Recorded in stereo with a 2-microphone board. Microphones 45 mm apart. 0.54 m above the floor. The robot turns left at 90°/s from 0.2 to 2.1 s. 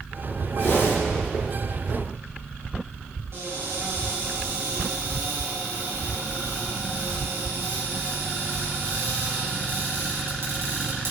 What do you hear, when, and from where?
0.6 s a whoosh: 135° left, 2.5 m; by 1.0 s 100° left, 2.5 m
3.3 s a cupboard door: 65° right (ahead or behind), 4 m